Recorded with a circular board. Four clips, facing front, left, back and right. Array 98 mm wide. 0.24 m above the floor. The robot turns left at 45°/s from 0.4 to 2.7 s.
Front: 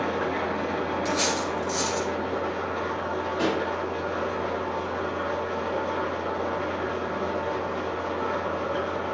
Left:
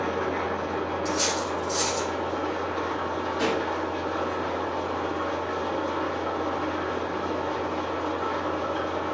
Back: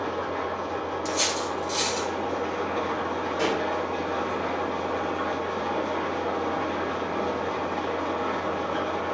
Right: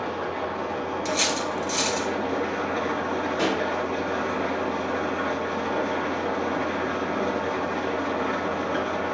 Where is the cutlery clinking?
70° right, 2 m; by 2.1 s 120° right, 2 m.